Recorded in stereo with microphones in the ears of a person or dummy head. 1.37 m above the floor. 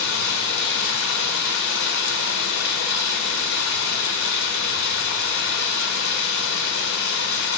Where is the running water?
65° left (ahead or behind), 1.5 m.